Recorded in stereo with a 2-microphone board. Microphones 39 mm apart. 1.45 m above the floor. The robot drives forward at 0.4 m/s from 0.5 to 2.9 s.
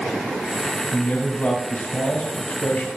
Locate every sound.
0.9 s a man speaking: 55° left (ahead or behind), 3.5 m; by 2.9 s 65° left (ahead or behind), 3 m